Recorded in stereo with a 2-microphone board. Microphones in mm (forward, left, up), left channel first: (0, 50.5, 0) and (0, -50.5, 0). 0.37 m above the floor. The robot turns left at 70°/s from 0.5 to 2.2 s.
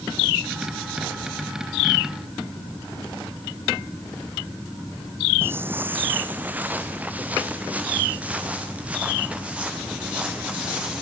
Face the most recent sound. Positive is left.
turn(degrees=-10)  # may be behind; listen again after turning